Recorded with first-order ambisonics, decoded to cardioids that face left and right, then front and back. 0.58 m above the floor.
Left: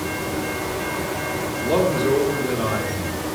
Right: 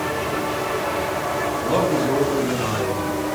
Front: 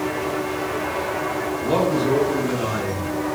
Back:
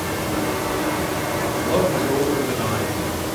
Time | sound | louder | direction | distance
1.6 | a man speaking | left 2 dB, front 1 dB | 50° left | 1.7 m